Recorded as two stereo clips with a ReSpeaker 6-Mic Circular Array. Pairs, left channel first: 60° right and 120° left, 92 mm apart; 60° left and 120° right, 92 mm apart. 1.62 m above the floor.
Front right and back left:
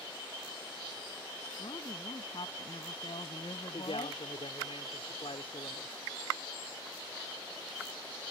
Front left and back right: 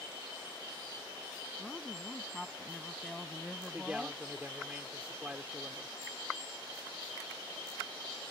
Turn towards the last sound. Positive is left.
turn(degrees=-45)